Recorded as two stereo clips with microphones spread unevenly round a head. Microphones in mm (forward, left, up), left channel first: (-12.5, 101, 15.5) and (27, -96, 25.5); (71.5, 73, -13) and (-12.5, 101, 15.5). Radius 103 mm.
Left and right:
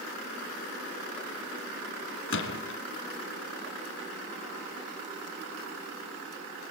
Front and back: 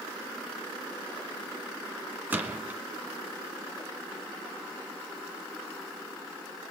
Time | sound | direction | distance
2.3 | a gunshot | 115° left | 1.9 m